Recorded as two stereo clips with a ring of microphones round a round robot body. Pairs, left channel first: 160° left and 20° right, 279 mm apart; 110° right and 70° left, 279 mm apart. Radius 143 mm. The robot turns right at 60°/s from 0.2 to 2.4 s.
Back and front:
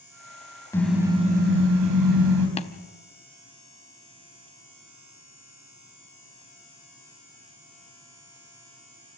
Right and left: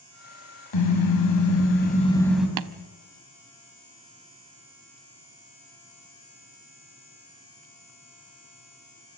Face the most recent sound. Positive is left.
turn(degrees=90)